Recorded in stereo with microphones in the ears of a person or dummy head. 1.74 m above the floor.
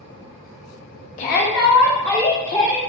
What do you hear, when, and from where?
1.2 s a shout: 35° left (ahead or behind), 0.6 m